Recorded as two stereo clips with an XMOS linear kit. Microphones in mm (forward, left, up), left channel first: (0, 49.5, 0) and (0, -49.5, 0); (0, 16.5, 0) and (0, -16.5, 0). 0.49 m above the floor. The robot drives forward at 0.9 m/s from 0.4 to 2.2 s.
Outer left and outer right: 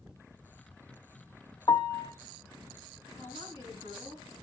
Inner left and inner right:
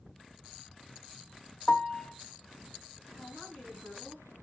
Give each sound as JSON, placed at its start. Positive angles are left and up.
{"t": 1.7, "sound": "a piano", "side_deg": 55, "distance_m": 0.5}
{"t": 3.1, "sound": "a woman speaking", "side_deg": 80, "distance_m": 6.0}